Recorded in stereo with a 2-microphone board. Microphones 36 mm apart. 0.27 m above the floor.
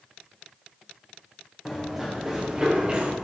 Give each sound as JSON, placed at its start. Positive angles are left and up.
{"t": 1.6, "sound": "running footsteps", "side_deg": 0, "distance_m": 3.0}